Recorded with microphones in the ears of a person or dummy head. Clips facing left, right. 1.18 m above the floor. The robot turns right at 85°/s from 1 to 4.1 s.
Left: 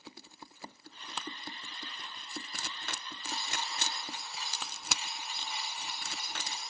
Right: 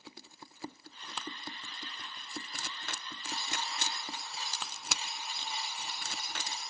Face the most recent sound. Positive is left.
turn(degrees=-35)  # may be behind; listen again after turning